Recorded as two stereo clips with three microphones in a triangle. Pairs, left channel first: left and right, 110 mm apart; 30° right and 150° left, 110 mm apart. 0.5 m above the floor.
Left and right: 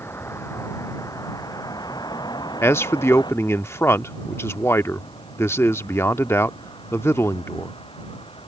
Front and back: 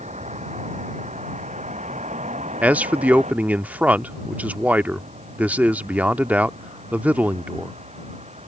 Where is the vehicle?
160° left; by 8.5 s 130° left.